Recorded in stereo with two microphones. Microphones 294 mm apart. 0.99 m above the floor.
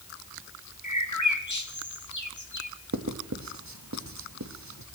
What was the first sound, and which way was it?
A bird, 75° left (ahead or behind).